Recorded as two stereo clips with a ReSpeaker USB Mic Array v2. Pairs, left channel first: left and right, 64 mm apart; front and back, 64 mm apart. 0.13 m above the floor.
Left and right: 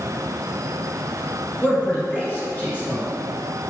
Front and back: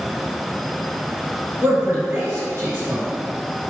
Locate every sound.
1.6 s a man speaking: 140° left, 1.9 m